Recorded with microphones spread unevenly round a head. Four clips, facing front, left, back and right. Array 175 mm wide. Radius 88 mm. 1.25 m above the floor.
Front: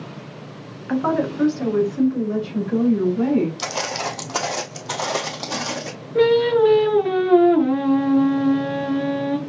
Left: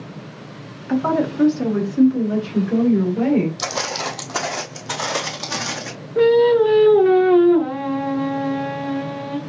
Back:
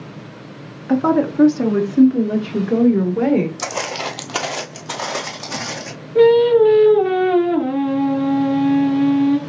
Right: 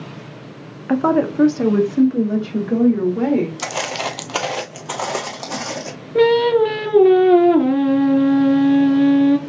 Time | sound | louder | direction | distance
0.9 | a woman speaking | right 3 dB, back 5 dB | 120° right | 0.9 m
3.6 | footsteps | right 1 dB, back 1 dB | 175° right | 1.4 m
6.2 | singing | even, back 5 dB | 90° right | 1.5 m